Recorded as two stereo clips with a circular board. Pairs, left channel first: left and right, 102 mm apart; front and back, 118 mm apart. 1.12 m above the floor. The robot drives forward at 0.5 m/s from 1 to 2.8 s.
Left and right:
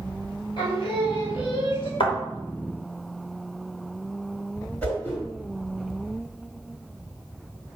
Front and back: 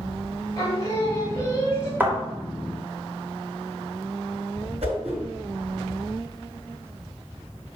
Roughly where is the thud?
Left.